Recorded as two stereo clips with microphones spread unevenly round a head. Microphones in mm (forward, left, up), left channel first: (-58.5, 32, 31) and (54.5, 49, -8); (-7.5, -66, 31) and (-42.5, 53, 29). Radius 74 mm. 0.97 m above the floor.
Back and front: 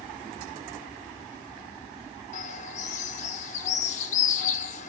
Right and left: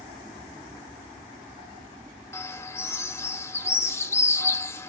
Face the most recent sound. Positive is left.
turn(degrees=-140)